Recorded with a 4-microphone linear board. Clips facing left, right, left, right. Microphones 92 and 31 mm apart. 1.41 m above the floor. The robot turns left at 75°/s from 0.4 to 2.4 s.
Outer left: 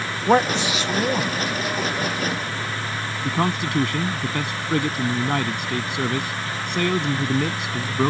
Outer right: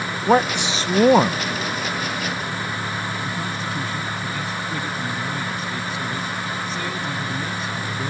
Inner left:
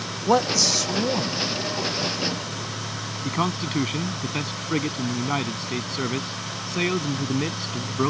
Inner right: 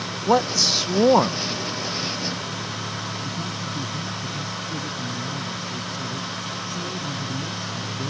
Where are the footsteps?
I don't hear footsteps.